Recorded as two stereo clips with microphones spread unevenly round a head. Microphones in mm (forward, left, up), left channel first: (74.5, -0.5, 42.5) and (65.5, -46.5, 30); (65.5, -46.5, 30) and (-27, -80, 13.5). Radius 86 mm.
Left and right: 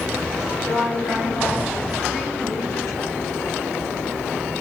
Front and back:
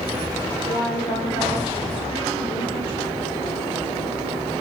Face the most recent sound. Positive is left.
turn(degrees=60)